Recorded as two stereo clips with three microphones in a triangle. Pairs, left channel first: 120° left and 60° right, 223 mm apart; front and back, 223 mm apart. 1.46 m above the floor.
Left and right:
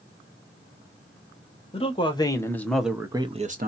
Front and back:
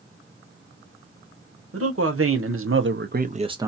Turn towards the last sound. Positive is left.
turn(degrees=-100)